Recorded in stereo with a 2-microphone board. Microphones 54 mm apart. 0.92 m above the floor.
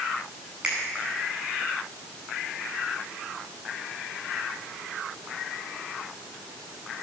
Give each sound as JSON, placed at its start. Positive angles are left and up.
{"t": 0.6, "sound": "a finger snap", "side_deg": -20, "distance_m": 9.5}